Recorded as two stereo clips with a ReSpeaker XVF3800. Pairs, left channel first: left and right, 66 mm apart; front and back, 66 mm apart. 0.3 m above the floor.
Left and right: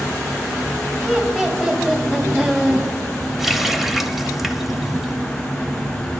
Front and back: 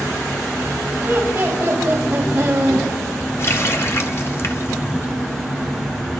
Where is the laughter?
160° right, 1.5 m.